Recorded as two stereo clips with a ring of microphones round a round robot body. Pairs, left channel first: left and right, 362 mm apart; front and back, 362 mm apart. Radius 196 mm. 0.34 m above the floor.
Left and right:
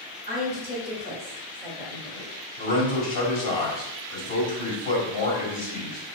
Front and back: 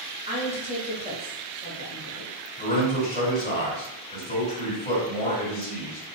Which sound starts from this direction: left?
A man speaking, at 2.6 s.